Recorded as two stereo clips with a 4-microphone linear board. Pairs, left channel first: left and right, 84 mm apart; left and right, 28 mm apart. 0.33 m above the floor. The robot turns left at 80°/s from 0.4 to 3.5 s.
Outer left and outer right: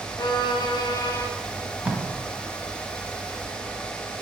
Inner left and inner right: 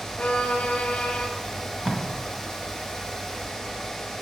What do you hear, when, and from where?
0.2 s a violin: 105° left, 0.7 m; by 1.3 s 30° left, 0.7 m
1.5 s tape being pulled: 10° left (ahead or behind), 1.4 m; by 2.0 s 25° right (ahead or behind), 1.4 m